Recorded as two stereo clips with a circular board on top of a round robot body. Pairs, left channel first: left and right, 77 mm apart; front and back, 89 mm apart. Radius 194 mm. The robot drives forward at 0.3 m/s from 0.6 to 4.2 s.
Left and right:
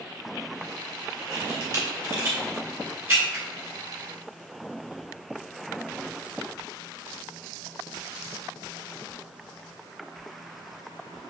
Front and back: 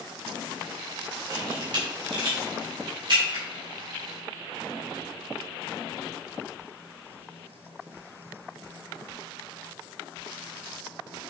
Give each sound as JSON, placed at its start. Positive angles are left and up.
{"t": 1.3, "sound": "a camera shutter", "azimuth_deg": -145, "distance_m": 1.5}